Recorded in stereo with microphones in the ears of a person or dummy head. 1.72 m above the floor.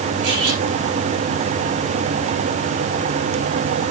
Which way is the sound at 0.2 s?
80° right.